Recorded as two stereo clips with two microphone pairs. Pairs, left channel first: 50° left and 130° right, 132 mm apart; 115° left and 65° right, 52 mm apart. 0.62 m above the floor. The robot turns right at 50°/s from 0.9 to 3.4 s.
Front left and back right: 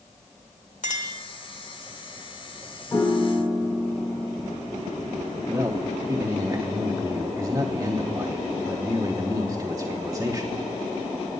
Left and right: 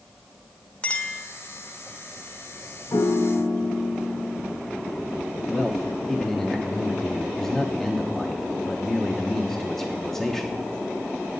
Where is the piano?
120° left, 1.6 m; by 4.6 s 145° left, 1.6 m.